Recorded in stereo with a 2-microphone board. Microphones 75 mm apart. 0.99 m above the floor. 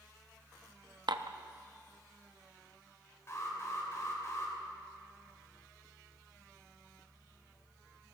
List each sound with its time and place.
1.1 s dishes clattering: 75° right (ahead or behind), 0.6 m
3.3 s an alarm: 40° left (ahead or behind), 3 m